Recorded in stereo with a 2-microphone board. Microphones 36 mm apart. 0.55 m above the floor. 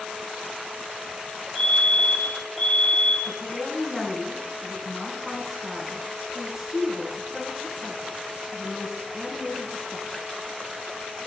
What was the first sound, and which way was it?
A fire alarm, 5° right (ahead or behind).